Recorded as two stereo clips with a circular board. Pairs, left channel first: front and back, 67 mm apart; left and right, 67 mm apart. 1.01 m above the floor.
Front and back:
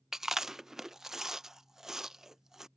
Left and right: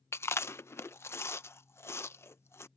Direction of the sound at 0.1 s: 100° left.